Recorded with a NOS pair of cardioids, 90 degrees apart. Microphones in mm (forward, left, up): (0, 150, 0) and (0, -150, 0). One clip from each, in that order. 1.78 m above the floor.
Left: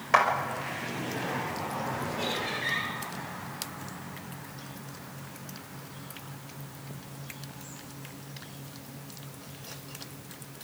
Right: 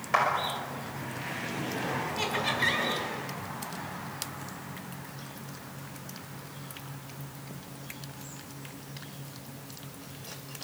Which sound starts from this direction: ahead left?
A clap, at 0.1 s.